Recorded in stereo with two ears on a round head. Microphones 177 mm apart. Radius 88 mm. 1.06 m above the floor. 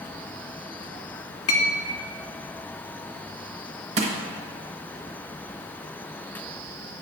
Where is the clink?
80° left, 1.4 m.